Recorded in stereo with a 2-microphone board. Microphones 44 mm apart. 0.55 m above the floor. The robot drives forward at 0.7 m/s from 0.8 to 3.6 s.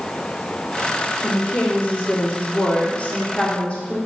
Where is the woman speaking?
25° left (ahead or behind), 1.4 m.